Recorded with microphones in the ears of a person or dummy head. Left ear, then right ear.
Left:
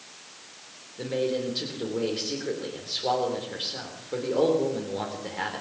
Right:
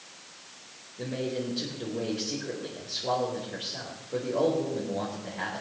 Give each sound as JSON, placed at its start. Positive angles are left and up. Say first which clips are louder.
{"t": 1.0, "sound": "a man speaking", "louder": "left 5 dB", "side_deg": 45, "distance_m": 3.5}